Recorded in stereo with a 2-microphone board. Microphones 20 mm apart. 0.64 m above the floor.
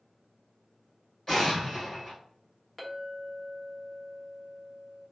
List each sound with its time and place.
1.3 s an explosion: 20° left (ahead or behind), 1.6 m
2.8 s a clink: 15° left (ahead or behind), 0.8 m